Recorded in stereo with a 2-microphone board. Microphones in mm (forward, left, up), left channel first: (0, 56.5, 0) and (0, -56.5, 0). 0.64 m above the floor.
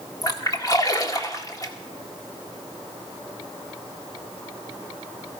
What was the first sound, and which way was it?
A splash, 30° left (ahead or behind).